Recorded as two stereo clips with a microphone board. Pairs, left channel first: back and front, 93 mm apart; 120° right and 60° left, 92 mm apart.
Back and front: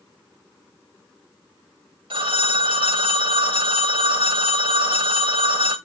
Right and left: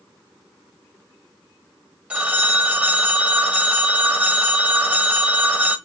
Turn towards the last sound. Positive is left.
turn(degrees=-15)